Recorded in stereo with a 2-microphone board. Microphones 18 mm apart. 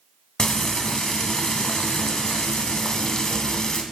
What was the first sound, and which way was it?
Frying, 40° left (ahead or behind).